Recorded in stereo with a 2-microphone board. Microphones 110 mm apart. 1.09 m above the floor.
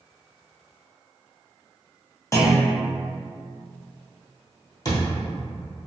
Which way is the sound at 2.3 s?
25° left (ahead or behind).